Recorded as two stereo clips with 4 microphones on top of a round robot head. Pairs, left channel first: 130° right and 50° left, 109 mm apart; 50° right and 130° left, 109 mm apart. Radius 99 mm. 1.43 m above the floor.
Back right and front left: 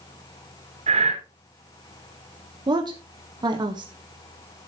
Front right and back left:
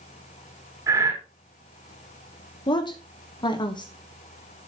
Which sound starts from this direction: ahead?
A woman speaking, at 2.7 s.